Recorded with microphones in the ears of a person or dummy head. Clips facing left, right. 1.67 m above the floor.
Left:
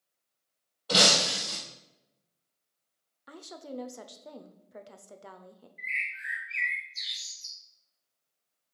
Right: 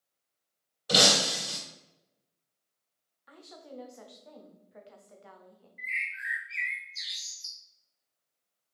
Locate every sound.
0.9 s breaking glass: 20° right (ahead or behind), 3 m
3.3 s a woman speaking: 55° left (ahead or behind), 0.6 m
5.8 s a bird: 5° right (ahead or behind), 1.6 m